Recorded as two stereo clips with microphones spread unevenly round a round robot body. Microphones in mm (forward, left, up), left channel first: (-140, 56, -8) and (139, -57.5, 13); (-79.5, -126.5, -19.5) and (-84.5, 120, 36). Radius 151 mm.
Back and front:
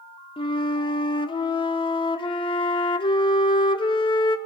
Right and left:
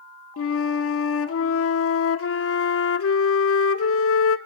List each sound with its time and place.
0.4 s a flute: 125° right, 0.8 m